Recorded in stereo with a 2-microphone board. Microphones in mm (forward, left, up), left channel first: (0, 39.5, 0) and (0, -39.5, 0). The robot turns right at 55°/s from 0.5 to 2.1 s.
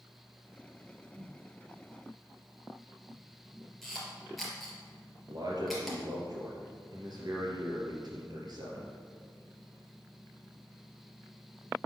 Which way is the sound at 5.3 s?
55° right (ahead or behind).